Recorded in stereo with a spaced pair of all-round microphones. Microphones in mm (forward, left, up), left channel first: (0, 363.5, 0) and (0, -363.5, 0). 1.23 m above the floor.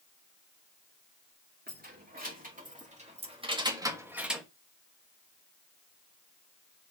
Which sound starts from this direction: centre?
Keys jangling, at 1.7 s.